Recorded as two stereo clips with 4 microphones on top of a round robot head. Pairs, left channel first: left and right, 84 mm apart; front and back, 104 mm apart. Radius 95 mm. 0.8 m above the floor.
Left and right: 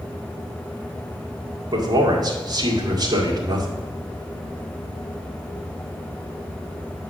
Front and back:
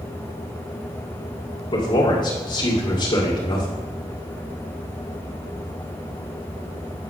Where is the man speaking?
50° right, 1.9 m.